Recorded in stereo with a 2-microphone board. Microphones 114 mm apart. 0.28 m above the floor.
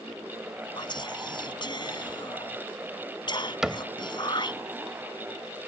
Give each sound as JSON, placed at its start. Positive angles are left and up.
{"t": 0.8, "sound": "whispering", "side_deg": 45}
{"t": 3.6, "sound": "a cupboard door", "side_deg": -5}